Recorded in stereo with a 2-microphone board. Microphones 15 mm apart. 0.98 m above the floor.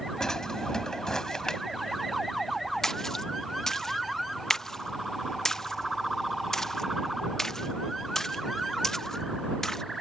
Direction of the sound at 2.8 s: 30° left (ahead or behind).